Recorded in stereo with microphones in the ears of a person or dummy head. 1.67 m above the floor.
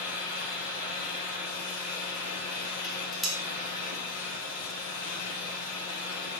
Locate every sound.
0.0 s a fan: 55° left (ahead or behind), 6.5 m
2.8 s dishes clattering: 5° left (ahead or behind), 2.5 m